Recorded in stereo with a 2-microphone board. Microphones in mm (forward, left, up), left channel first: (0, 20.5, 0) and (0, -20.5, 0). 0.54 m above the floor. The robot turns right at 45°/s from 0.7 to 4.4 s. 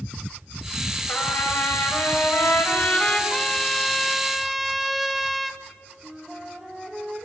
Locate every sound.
1.1 s a trumpet: 55° left, 3.5 m; by 3.2 s 150° left, 3.5 m
3.3 s a trumpet: 20° left (ahead or behind), 1.0 m; by 5.6 s 5° right (ahead or behind), 1.0 m
6.0 s a flute: 10° right (ahead or behind), 4 m